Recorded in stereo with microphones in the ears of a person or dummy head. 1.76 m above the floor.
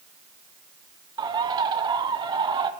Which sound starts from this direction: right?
A bird, at 1.2 s.